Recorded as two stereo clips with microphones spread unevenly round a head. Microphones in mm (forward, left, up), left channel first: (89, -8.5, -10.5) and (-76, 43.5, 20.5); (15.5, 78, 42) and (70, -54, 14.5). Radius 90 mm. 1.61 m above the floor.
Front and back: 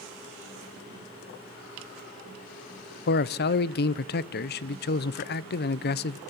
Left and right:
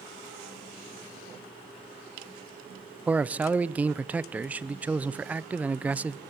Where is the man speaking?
15° left, 0.6 m.